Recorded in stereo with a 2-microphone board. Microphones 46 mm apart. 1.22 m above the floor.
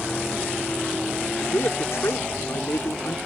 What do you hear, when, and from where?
1.4 s a man speaking: 70° left (ahead or behind)